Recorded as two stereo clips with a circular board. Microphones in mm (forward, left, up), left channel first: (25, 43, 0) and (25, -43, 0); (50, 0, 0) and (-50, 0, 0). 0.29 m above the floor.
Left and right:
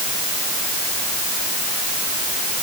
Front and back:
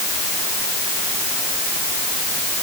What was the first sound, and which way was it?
Only background noise.